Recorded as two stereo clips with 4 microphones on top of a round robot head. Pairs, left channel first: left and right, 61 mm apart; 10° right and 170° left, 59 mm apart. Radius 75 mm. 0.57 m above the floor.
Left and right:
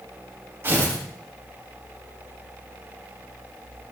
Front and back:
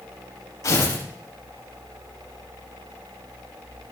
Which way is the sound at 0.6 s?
30° right.